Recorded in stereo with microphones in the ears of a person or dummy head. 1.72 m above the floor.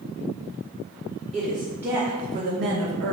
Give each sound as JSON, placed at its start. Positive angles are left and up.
{"t": 1.3, "sound": "a woman speaking", "side_deg": 0, "distance_m": 1.2}